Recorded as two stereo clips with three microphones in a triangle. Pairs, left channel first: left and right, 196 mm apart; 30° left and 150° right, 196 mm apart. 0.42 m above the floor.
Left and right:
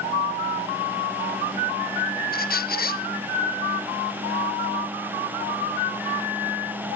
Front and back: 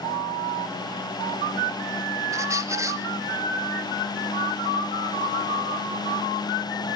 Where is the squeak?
135° left, 0.6 m.